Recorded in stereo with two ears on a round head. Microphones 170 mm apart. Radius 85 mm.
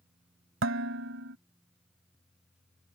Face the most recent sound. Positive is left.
turn(degrees=-75)  # may be behind; listen again after turning